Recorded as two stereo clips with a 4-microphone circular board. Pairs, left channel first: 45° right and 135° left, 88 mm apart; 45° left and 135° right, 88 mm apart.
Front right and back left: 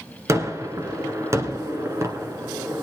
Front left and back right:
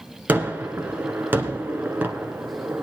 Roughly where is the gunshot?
Behind.